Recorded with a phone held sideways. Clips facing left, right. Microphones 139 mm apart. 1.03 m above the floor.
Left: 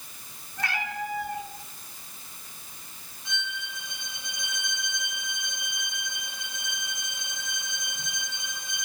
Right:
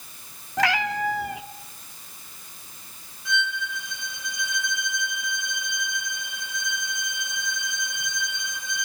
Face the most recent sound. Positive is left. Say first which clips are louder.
# right 9 dB
turn(degrees=25)  # may be behind; listen again after turning